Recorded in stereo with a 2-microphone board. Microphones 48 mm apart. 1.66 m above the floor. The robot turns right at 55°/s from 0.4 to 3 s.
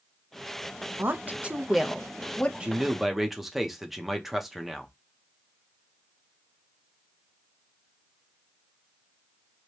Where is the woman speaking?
50° right (ahead or behind), 0.6 m; by 2.5 s 30° left (ahead or behind), 0.6 m.